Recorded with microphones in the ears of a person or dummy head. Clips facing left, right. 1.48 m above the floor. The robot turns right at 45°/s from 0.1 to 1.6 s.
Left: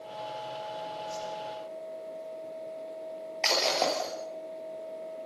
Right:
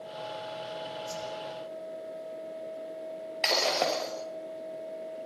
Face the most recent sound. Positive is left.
turn(degrees=-5)  # may be behind; listen again after turning